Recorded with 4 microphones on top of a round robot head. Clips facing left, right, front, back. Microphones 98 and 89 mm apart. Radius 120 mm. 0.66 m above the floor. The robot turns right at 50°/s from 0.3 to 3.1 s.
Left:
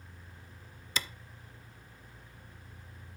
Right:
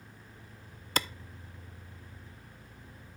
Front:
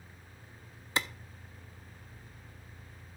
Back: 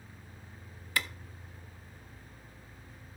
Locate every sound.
1.0 s a clap: 60° right, 0.6 m; by 1.1 s 55° right, 0.6 m